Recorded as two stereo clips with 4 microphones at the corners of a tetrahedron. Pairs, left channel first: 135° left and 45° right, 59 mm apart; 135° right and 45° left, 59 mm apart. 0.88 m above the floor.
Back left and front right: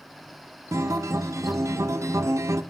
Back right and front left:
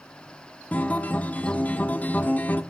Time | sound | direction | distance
0.7 | a guitar | 75° right | 0.9 m